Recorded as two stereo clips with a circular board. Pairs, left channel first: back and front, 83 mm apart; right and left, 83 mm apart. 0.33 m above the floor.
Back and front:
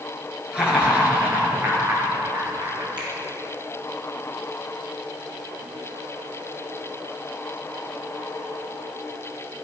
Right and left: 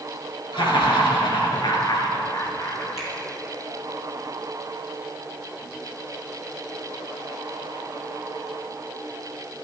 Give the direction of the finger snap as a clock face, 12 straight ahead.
12 o'clock.